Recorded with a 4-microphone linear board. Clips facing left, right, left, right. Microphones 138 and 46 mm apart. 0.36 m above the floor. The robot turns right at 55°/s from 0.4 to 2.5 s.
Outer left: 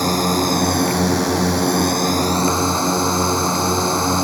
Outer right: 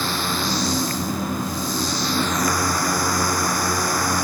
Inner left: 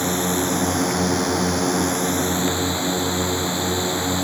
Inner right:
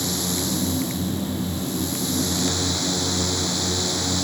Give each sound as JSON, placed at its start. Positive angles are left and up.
{"t": 0.0, "sound": "a drone", "azimuth_deg": 40}